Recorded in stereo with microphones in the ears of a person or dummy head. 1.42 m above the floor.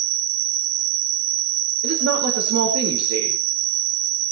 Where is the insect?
90° right, 1.5 m.